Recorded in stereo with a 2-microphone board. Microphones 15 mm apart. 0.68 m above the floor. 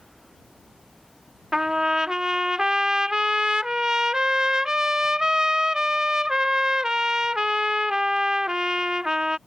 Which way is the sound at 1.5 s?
45° right (ahead or behind).